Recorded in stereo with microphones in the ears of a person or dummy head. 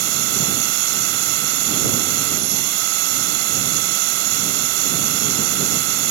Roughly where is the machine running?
Right.